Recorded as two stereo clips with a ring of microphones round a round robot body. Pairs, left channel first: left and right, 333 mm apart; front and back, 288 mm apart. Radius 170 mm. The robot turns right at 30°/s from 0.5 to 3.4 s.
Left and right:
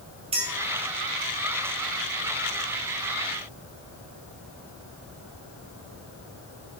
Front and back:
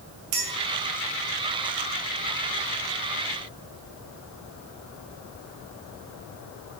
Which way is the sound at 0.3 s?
165° right.